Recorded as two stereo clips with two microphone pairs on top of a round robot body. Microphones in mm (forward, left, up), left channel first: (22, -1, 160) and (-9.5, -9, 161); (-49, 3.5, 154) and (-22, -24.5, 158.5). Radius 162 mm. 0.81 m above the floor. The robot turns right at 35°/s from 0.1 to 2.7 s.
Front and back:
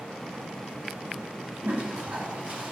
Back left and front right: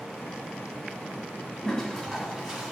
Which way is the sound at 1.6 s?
150° right.